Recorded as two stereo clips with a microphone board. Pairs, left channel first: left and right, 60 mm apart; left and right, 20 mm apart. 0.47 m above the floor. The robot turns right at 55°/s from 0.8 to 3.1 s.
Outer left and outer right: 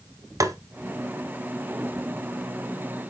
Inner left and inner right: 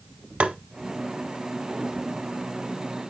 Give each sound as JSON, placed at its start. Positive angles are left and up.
{"t": 0.4, "sound": "tapping", "side_deg": -70, "distance_m": 0.7}